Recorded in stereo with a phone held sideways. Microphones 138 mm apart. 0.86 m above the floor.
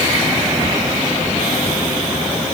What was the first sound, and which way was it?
Only background noise.